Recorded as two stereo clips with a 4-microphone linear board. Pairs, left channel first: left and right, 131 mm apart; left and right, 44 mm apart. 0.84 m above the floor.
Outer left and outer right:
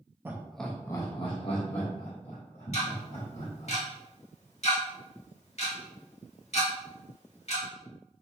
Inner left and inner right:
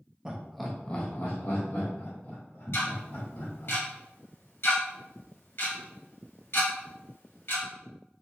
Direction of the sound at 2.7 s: 60° left (ahead or behind).